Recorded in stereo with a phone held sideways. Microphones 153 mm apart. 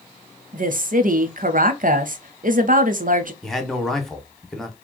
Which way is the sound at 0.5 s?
65° right (ahead or behind).